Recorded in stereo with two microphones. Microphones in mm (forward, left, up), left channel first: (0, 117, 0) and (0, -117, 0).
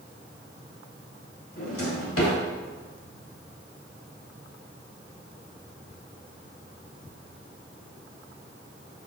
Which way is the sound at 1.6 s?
65° left (ahead or behind).